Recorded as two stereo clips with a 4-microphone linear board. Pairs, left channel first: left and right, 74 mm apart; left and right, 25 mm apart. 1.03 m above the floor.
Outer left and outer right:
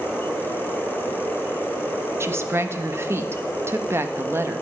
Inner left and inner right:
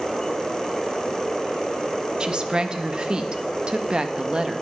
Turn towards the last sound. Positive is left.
turn(degrees=-35)  # may be behind; listen again after turning